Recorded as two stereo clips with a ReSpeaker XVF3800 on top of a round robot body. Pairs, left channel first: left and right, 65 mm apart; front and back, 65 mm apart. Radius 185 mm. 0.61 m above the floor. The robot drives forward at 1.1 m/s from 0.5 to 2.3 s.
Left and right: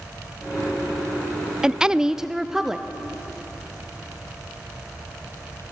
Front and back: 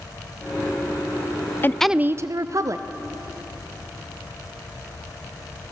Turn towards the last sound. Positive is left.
turn(degrees=-170)